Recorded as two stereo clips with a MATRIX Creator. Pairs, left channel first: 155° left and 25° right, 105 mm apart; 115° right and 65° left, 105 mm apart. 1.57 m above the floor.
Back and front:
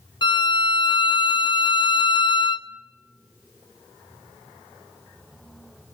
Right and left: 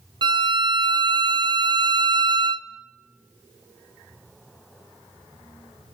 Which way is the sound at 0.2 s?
115° left.